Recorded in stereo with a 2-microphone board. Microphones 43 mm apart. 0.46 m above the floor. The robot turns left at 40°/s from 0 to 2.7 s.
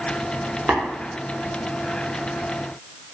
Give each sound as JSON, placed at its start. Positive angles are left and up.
{"t": 0.7, "sound": "tapping", "side_deg": -50, "distance_m": 0.7}